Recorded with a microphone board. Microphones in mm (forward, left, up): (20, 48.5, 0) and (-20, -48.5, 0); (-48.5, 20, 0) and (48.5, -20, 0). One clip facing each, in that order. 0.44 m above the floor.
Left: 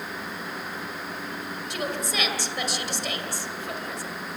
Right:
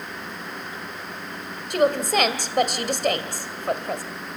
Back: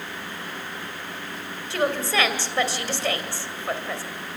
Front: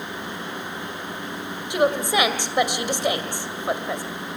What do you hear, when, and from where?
1.7 s a woman speaking: 95° right, 2 m